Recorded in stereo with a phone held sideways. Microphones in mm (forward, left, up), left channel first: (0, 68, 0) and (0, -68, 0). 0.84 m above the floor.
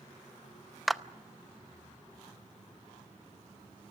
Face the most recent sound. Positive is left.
turn(degrees=0)  # may be behind; listen again after turning